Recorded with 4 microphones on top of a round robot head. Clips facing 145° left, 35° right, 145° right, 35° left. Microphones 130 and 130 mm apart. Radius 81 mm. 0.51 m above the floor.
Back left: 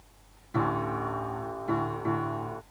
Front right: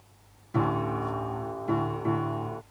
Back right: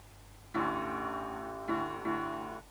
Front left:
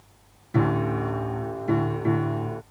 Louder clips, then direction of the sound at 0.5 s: Front right 1 dB, front left 10 dB; 45° left.